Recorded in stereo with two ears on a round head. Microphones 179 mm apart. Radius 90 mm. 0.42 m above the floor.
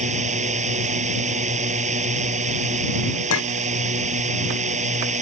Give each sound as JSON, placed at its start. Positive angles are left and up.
{"t": 0.0, "sound": "a drone", "side_deg": -40}
{"t": 3.3, "sound": "a clink", "side_deg": 75}